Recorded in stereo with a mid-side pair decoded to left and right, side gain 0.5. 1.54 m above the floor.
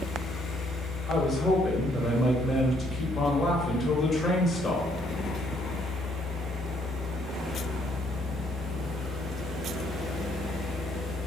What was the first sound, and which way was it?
A fan, 45° left.